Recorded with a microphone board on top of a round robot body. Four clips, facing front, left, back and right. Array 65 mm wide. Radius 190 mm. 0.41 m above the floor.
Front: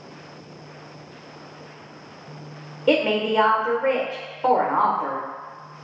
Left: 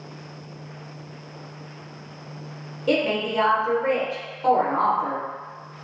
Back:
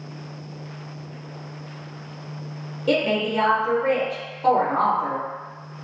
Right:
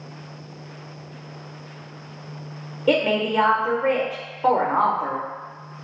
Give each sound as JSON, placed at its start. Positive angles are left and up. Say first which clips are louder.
{"t": 2.9, "sound": "a woman speaking", "louder": "right 3 dB, front 2 dB", "azimuth_deg": -40, "distance_m": 0.9}